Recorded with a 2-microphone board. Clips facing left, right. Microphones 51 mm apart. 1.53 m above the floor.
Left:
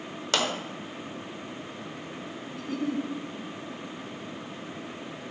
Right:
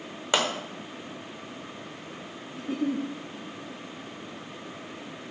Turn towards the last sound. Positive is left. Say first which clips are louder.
# right 2 dB
turn(degrees=-20)  # may be behind; listen again after turning